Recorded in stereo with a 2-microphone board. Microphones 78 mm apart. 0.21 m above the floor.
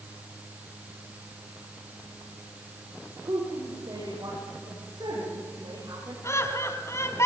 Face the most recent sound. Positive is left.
turn(degrees=40)  # may be behind; listen again after turning